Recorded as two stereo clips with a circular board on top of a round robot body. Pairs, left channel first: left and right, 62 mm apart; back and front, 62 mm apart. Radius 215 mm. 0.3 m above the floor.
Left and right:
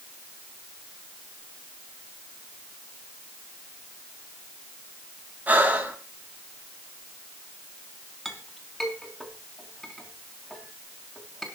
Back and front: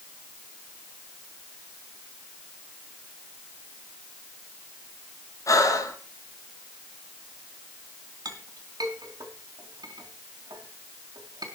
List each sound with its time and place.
5.5 s breathing: 155° right, 4 m
8.2 s a clink: straight ahead, 4 m